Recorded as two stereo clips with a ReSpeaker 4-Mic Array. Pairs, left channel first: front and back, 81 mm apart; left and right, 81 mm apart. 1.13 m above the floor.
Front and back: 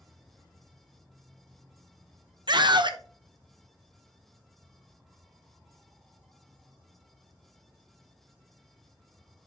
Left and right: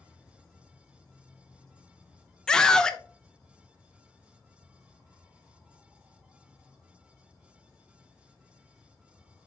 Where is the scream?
170° left, 0.8 m.